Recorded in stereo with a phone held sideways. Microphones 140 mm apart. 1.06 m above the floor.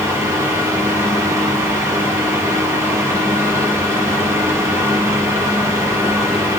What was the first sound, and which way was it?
A fan, 20° right (ahead or behind).